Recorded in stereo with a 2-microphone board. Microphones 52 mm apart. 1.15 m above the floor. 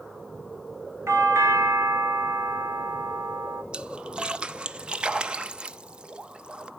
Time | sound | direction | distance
1.1 | a doorbell | 65° right (ahead or behind) | 2 m
3.7 | a splash | 20° right (ahead or behind) | 0.6 m